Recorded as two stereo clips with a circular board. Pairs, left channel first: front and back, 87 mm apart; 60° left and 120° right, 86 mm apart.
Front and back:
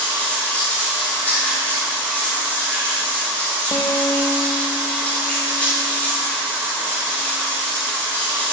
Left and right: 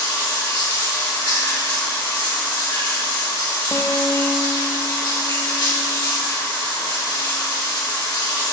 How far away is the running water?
About 3 m.